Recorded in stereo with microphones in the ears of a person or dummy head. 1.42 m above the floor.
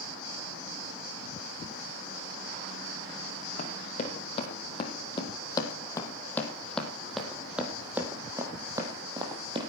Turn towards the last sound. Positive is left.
turn(degrees=-35)  # may be behind; listen again after turning